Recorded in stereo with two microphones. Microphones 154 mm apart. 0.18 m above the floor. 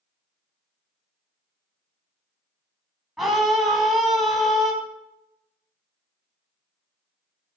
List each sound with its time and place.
3.2 s a scream: centre (ahead or behind), 1.5 m